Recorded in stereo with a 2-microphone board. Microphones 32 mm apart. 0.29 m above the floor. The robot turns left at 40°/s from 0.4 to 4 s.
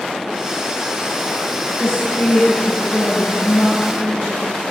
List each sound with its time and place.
1.8 s a woman speaking: 85° left, 4 m; by 4.6 s straight ahead, 4 m